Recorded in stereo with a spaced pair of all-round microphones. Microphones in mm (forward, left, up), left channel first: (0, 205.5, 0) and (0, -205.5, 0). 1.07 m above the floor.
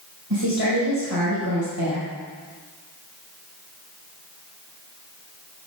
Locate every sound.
0.3 s a woman speaking: 85° right, 4 m